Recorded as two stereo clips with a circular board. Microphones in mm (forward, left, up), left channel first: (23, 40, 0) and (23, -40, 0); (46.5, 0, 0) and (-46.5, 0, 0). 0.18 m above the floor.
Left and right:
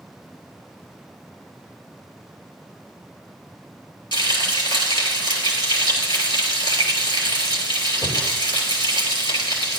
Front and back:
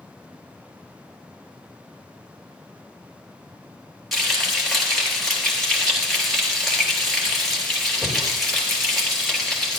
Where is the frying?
85° left, 2.5 m.